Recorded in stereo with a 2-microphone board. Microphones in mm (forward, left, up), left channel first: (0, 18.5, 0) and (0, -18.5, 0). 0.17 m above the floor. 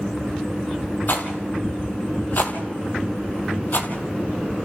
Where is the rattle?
50° left (ahead or behind), 2 m.